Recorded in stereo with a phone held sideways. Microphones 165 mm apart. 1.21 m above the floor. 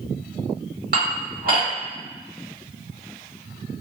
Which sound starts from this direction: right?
Dishes clattering, at 0.9 s.